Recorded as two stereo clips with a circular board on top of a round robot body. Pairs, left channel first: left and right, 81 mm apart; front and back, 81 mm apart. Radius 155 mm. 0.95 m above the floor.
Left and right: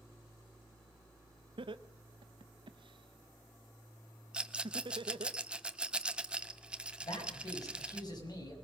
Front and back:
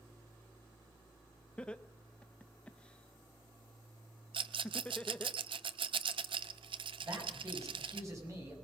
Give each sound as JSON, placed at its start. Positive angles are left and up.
{"t": 1.6, "sound": "laughter", "azimuth_deg": -75, "distance_m": 1.0}
{"t": 4.3, "sound": "a rattle", "azimuth_deg": -170, "distance_m": 0.7}
{"t": 7.0, "sound": "a man speaking", "azimuth_deg": 125, "distance_m": 6.5}